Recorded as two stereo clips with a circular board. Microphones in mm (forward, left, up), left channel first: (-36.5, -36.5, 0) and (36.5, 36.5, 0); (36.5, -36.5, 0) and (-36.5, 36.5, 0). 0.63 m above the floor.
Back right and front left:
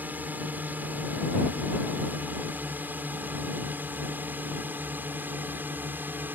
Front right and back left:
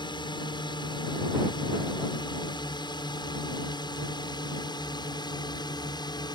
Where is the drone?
25° right; by 6.3 s 20° right.